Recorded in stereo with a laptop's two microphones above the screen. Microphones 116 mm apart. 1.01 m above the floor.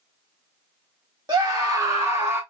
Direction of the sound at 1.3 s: 35° right (ahead or behind).